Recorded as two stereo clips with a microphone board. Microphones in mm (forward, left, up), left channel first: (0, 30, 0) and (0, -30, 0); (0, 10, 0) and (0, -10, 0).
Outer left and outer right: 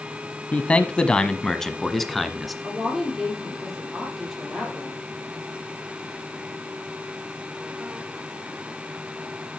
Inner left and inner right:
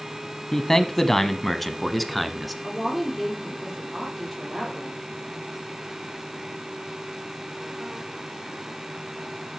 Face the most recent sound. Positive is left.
turn(degrees=-5)  # may be behind; listen again after turning